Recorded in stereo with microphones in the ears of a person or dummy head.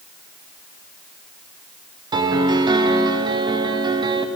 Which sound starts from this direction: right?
A piano, at 2.1 s.